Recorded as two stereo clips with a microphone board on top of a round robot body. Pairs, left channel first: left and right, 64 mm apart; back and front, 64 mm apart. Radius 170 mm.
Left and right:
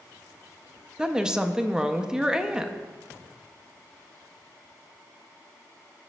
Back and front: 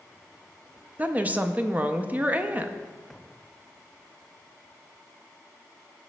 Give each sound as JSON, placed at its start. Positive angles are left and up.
{"t": 1.0, "sound": "a woman speaking", "azimuth_deg": -25, "distance_m": 0.6}